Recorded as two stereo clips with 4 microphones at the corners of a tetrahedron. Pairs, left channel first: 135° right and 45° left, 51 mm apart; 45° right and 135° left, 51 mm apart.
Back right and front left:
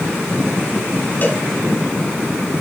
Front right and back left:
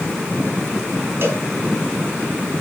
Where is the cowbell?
170° left, 1.8 m.